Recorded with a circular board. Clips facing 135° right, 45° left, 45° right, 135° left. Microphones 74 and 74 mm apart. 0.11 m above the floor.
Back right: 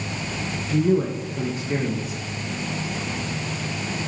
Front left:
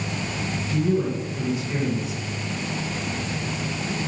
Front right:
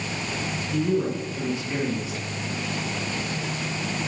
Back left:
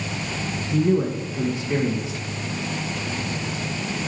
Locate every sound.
0.7 s a man speaking: 165° right, 3 m